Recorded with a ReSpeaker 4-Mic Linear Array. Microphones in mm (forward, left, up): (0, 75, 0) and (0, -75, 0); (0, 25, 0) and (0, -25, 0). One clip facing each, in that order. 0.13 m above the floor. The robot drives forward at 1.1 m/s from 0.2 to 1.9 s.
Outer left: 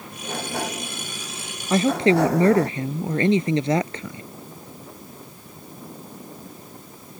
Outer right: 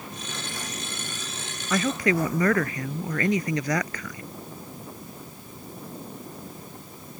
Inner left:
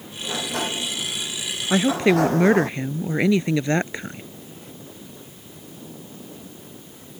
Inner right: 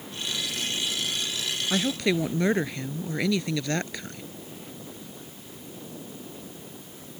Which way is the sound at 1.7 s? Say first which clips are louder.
Outer left 6 dB, inner left 8 dB; 30° left (ahead or behind).